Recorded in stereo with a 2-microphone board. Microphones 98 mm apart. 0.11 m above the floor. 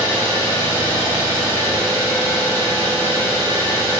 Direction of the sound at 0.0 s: 25° left (ahead or behind).